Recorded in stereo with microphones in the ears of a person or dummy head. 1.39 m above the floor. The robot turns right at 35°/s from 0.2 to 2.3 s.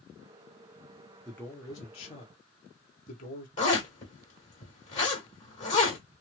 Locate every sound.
1.2 s a man speaking: 5° left, 1.1 m; by 3.5 s 45° left, 1.1 m
3.6 s a zipper: 40° left (ahead or behind), 1.6 m